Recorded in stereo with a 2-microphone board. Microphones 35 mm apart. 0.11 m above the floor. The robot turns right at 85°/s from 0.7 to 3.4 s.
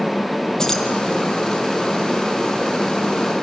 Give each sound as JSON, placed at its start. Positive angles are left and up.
{"t": 0.6, "sound": "keys jangling", "side_deg": 20, "distance_m": 2.5}